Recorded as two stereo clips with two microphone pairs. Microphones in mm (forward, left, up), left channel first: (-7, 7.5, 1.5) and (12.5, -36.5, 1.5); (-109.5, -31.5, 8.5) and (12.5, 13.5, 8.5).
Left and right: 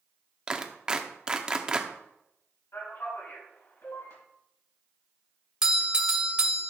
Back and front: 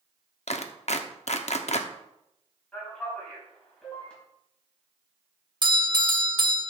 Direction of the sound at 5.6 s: Straight ahead.